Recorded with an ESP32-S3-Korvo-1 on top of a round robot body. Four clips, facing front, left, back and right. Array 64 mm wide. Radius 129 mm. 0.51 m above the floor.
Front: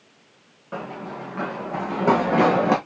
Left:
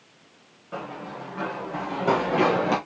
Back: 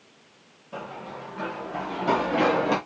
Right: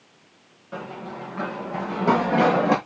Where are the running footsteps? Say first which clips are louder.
Right 1 dB, front 4 dB; straight ahead, 4 m; by 2.8 s 30° right, 3 m.